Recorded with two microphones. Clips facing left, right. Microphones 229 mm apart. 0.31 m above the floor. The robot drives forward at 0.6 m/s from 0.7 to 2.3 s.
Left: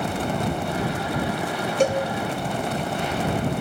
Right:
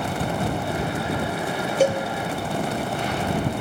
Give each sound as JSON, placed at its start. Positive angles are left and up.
{"t": 1.8, "sound": "a cowbell", "side_deg": -5, "distance_m": 1.1}